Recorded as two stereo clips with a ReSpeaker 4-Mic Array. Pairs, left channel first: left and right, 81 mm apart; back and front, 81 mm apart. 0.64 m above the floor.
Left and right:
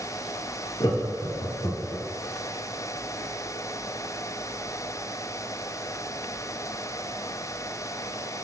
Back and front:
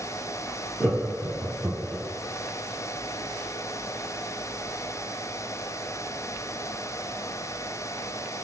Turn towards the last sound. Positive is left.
turn(degrees=70)